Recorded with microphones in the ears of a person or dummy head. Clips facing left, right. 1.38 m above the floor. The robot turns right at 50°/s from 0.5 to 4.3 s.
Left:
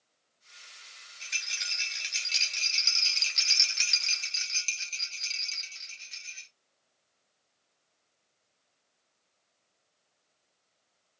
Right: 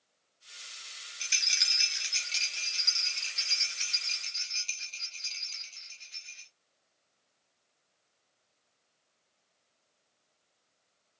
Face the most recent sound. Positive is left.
turn(degrees=110)